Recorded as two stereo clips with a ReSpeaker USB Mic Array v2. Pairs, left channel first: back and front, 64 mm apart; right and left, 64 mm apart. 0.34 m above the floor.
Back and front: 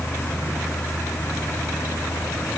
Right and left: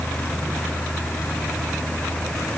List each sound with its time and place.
Only background noise.